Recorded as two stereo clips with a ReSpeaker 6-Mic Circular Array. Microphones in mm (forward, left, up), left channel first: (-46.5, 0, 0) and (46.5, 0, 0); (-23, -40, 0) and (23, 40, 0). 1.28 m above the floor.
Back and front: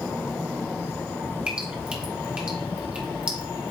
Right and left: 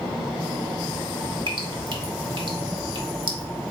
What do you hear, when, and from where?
1.5 s dripping: 75° left, 1.3 m